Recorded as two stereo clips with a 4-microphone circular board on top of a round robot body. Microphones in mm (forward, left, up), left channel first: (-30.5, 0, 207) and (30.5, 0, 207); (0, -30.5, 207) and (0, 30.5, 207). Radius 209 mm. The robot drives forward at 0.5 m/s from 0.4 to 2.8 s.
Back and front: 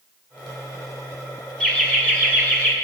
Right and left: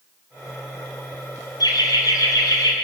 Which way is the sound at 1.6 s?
105° right.